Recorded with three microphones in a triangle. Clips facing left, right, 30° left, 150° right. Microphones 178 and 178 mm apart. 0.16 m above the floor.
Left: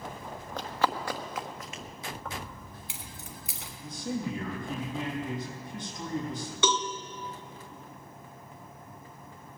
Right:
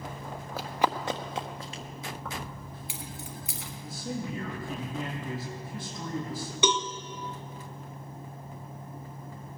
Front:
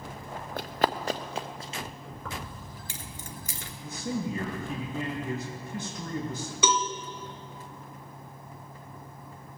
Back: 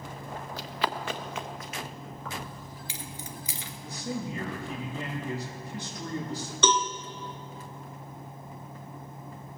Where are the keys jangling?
Straight ahead, 1.4 m.